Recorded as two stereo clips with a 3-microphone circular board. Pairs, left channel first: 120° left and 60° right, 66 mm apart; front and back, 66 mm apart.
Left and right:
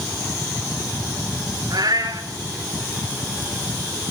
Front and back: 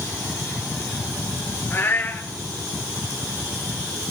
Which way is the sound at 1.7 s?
55° right.